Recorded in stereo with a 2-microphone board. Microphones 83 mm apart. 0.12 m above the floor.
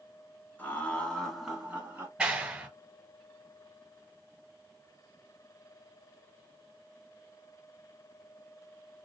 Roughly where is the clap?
Centre.